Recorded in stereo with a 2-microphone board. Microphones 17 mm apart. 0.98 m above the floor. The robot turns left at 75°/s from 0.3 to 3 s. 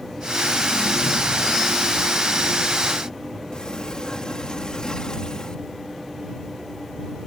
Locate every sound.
3.5 s a sliding door: 55° left (ahead or behind)